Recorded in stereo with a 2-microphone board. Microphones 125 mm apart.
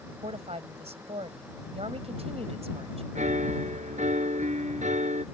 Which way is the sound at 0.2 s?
55° right (ahead or behind).